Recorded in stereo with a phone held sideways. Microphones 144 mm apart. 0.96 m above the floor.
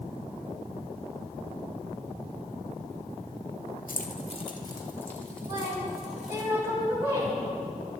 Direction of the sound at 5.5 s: 20° right (ahead or behind).